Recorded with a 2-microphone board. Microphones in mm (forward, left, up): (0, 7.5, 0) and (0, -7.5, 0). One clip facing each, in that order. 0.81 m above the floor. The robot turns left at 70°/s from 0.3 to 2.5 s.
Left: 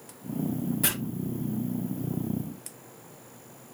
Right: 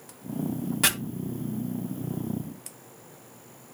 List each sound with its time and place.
0.8 s chopping: 40° right (ahead or behind), 2 m; by 0.9 s 45° right (ahead or behind), 2 m